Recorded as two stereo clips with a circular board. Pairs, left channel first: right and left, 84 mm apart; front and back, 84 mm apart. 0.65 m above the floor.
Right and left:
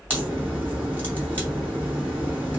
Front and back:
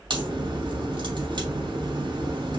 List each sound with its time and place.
0.1 s a crack: 160° left, 3 m